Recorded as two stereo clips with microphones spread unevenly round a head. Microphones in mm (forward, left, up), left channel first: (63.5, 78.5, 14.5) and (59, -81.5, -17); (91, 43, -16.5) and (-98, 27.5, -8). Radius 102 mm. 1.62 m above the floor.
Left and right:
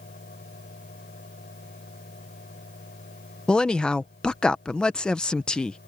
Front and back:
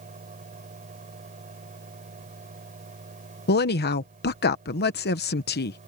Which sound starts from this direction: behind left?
A fan, at 0.0 s.